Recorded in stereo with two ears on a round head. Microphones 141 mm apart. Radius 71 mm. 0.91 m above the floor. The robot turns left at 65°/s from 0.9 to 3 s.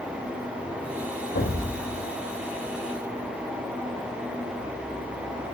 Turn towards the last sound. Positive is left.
turn(degrees=-50)